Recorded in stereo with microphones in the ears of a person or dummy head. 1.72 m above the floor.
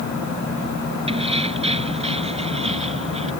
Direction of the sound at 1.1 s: 35° right (ahead or behind).